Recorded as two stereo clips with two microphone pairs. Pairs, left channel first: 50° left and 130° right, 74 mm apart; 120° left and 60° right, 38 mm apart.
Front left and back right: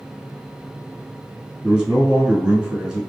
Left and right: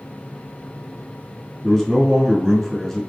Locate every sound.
1.6 s a man speaking: straight behind, 1.2 m